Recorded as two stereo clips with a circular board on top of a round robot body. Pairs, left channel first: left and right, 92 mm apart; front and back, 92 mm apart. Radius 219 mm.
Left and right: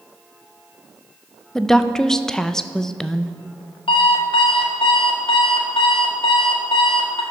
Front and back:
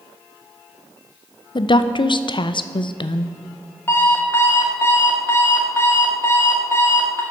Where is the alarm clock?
65° left, 0.7 m.